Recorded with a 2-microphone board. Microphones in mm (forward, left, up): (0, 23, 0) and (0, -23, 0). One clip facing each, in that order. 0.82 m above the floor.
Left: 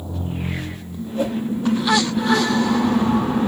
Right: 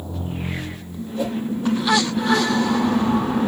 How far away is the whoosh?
About 1.2 m.